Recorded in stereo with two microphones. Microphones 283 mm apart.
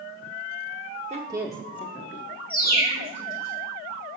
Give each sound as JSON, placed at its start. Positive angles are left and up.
{"t": 1.1, "sound": "a woman speaking", "side_deg": -25, "distance_m": 0.8}
{"t": 2.5, "sound": "a bird", "side_deg": 30, "distance_m": 2.0}